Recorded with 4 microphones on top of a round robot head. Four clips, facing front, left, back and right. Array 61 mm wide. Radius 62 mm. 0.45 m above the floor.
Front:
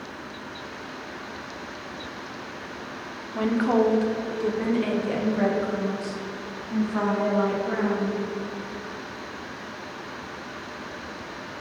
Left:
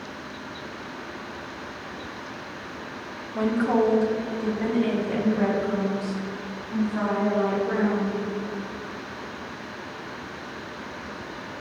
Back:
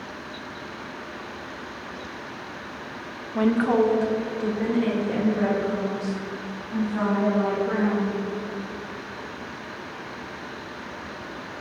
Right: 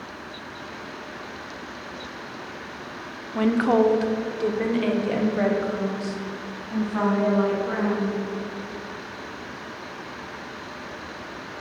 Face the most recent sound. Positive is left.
turn(degrees=-70)